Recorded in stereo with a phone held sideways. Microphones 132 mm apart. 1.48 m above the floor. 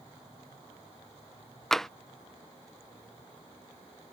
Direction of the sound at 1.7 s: 5° left (ahead or behind).